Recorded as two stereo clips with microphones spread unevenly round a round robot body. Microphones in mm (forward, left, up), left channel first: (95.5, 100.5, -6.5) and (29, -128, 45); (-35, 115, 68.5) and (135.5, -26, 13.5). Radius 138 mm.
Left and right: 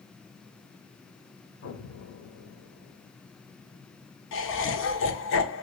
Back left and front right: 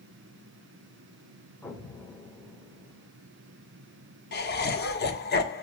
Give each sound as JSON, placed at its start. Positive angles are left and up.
{"t": 1.6, "sound": "an explosion", "azimuth_deg": 55, "distance_m": 1.6}
{"t": 4.3, "sound": "laughter", "azimuth_deg": 90, "distance_m": 1.6}